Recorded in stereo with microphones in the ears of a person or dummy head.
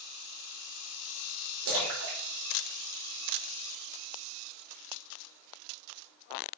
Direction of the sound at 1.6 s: 75° right (ahead or behind).